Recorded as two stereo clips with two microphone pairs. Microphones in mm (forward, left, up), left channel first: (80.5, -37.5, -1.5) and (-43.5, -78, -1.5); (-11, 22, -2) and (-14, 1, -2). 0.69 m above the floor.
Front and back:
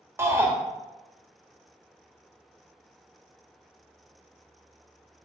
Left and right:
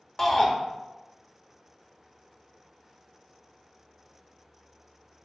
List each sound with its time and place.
0.2 s a shout: 140° left, 0.8 m